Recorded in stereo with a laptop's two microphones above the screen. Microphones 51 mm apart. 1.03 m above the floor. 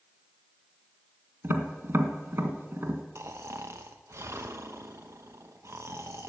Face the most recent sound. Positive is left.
turn(degrees=-65)  # may be behind; listen again after turning